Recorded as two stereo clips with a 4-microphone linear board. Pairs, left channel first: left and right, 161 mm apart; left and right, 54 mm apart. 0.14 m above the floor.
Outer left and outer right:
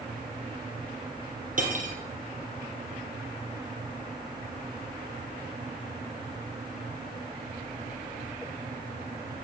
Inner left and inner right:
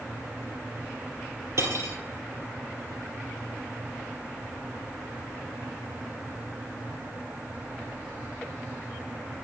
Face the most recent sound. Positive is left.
turn(degrees=-55)  # may be behind; listen again after turning